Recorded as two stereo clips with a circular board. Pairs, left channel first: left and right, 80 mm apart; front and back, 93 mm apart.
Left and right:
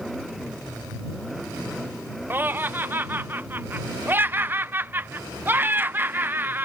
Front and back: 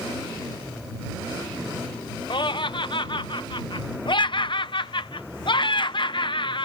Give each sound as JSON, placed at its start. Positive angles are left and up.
{"t": 2.3, "sound": "laughter", "azimuth_deg": -25}